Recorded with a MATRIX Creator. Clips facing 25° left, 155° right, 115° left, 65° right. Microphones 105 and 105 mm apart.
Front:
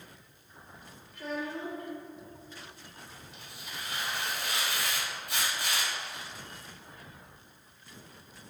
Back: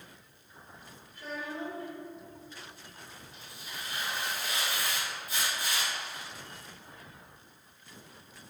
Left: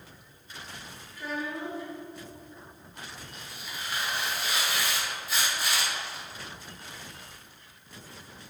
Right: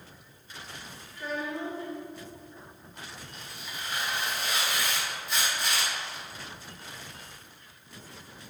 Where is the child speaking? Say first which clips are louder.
Front 3 dB, right 1 dB; 30° left, 1.4 m.